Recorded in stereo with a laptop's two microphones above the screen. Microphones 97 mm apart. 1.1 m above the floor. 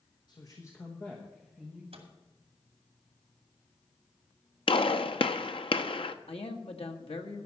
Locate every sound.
0.3 s a man speaking: 45° left (ahead or behind), 1.0 m; by 1.8 s 5° right (ahead or behind), 1.4 m
1.9 s a microwave: 85° right, 2 m
4.7 s a gunshot: 65° left (ahead or behind), 0.6 m
6.3 s a man speaking: 75° left (ahead or behind), 1.3 m